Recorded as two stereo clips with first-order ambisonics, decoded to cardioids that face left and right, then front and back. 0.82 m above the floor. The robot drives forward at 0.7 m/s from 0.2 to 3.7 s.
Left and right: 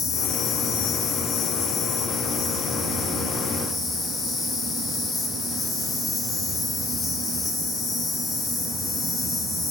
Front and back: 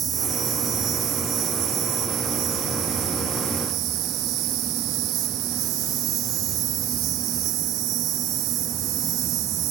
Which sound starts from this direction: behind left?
An insect, at 0.0 s.